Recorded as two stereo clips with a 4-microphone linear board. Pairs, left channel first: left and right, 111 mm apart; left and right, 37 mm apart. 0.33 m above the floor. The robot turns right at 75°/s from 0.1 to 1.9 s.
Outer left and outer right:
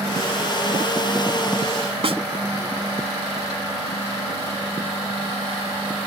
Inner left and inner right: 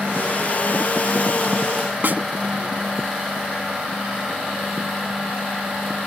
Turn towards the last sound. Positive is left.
turn(degrees=-60)  # may be behind; listen again after turning